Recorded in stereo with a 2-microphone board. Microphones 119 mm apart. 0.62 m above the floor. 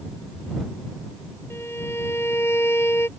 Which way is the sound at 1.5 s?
20° left (ahead or behind).